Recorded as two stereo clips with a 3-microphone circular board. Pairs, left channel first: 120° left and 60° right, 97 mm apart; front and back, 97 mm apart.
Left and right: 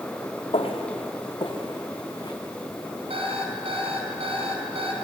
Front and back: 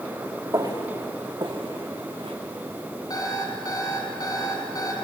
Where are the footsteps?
130° left, 3 m; by 2.4 s 170° left, 3.5 m.